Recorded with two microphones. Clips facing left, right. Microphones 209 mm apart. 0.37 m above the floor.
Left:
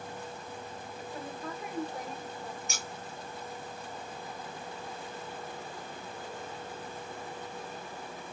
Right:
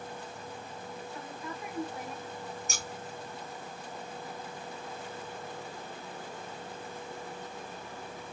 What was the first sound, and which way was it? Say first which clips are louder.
A woman speaking: left 2 dB; 40° left (ahead or behind).